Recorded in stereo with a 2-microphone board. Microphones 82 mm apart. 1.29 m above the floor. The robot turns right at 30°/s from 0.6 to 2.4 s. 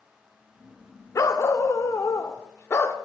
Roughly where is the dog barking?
Left.